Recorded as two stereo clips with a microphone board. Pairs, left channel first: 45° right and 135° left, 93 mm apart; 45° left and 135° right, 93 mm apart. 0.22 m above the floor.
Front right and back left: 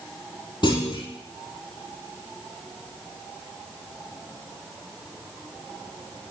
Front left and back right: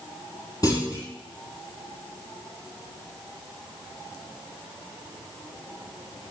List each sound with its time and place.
0.6 s a clunk: 5° right, 3 m